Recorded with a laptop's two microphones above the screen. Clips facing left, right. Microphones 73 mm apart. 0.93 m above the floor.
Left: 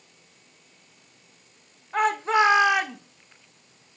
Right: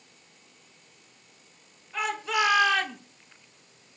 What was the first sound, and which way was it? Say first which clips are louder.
A shout: left 7 dB; 45° left (ahead or behind).